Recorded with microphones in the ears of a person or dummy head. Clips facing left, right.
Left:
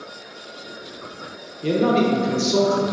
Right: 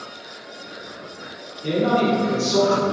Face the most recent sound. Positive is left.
turn(degrees=50)  # may be behind; listen again after turning